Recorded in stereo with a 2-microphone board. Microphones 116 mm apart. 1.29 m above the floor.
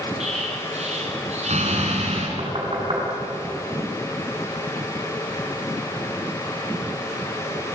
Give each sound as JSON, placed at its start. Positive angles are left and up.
{"t": 0.2, "sound": "an explosion", "side_deg": -70, "distance_m": 5.0}
{"t": 2.4, "sound": "knocking", "side_deg": -55, "distance_m": 8.0}